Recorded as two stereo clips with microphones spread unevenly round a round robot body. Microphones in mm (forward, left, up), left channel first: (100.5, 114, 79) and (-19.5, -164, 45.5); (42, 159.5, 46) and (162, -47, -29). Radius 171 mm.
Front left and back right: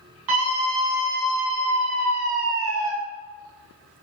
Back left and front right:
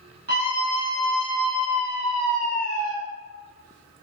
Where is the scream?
135° right, 7 m; by 2.9 s 120° right, 3.5 m.